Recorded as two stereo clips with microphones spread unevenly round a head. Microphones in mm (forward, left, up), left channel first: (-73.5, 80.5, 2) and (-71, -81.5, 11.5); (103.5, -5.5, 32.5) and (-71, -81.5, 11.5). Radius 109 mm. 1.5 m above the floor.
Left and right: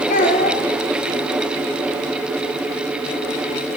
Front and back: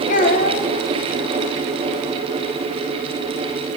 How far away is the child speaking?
About 0.7 m.